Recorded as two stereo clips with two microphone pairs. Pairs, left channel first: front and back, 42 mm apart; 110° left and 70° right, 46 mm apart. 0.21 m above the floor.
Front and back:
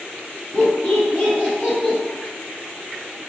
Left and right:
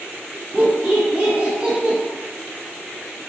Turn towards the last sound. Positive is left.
turn(degrees=-45)